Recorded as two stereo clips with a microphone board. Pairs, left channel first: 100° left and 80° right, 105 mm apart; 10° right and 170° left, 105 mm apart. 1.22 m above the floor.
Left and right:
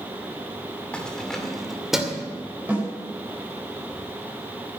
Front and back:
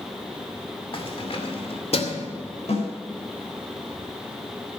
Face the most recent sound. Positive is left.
turn(degrees=-5)